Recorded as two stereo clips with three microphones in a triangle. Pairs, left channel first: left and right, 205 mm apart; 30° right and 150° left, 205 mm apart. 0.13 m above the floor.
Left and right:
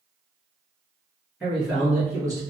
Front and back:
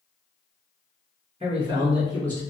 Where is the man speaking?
Straight behind, 1.3 m; by 2.4 s 80° right, 1.1 m.